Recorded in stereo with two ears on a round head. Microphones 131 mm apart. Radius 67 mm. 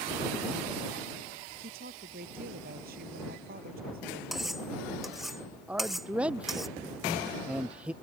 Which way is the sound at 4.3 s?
Centre (ahead or behind).